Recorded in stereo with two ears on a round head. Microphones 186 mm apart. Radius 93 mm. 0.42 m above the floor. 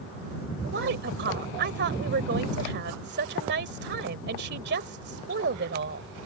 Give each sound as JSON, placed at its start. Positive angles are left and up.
{"t": 0.6, "sound": "a woman speaking", "side_deg": -55}